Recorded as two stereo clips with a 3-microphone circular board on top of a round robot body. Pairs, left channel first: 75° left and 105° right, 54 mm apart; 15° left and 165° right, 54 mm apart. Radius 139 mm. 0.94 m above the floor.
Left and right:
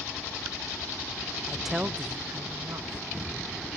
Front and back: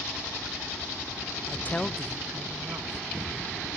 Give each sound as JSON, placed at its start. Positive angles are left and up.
{"t": 1.5, "sound": "a woman speaking", "azimuth_deg": 0, "distance_m": 0.6}